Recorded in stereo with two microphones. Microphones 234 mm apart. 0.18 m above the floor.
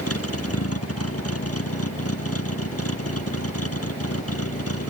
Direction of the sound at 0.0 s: 80° left.